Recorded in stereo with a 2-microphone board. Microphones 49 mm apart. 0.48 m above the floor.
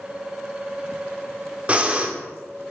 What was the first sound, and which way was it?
Breathing, 30° right (ahead or behind).